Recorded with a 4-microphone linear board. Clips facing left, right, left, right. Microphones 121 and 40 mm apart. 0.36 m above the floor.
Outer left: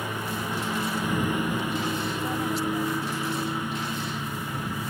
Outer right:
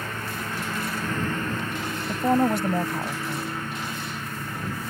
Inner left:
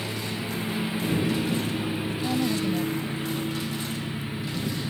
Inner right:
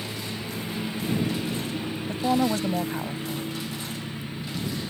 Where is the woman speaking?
60° right (ahead or behind).